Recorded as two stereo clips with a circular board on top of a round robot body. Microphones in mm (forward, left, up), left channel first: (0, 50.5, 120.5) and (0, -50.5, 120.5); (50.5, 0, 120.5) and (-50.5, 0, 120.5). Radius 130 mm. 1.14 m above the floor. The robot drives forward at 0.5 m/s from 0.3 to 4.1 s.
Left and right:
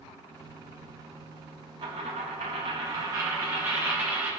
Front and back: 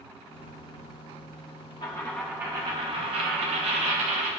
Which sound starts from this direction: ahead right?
A dropped coin, at 1.8 s.